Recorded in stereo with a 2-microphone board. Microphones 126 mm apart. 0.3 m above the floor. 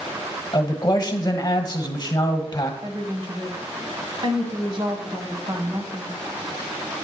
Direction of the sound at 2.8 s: 45° right (ahead or behind).